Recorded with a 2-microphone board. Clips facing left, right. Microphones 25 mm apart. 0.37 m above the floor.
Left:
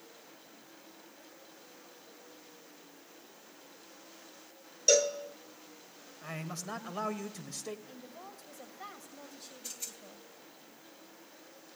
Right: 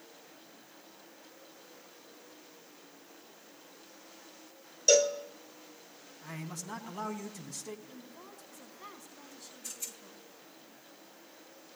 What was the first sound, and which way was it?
A cowbell, 10° left (ahead or behind).